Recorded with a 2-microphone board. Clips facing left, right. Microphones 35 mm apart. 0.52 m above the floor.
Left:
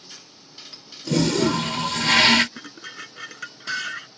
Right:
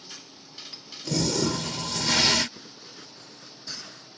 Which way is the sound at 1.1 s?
45° left (ahead or behind).